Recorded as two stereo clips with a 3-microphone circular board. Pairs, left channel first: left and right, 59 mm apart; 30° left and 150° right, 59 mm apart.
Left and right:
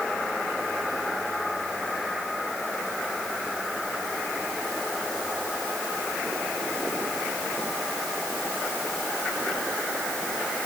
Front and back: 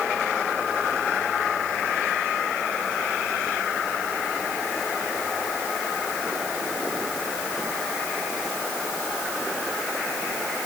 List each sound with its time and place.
Only background noise.